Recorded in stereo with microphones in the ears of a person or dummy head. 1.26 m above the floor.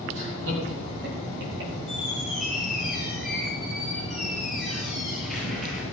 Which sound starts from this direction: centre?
A squeak, at 1.9 s.